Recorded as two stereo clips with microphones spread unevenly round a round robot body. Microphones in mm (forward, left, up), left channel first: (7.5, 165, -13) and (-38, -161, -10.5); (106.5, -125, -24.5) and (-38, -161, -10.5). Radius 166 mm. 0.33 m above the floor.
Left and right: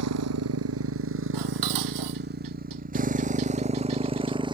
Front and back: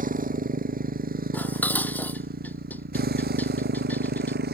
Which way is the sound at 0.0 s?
140° right.